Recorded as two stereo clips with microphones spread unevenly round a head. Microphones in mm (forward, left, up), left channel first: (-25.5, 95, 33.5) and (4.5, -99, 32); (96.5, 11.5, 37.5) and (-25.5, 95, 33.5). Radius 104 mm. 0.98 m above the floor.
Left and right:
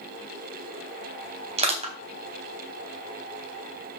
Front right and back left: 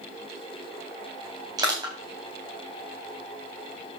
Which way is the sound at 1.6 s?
140° right.